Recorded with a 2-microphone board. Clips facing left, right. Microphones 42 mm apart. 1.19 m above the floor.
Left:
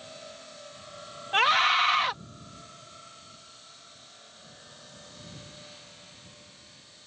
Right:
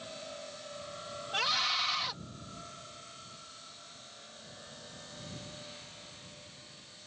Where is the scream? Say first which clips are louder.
Left 10 dB; 50° left (ahead or behind).